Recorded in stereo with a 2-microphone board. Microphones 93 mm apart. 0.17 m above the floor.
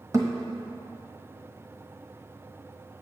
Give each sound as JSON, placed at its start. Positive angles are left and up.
{"t": 0.1, "sound": "a thud", "side_deg": -30, "distance_m": 1.3}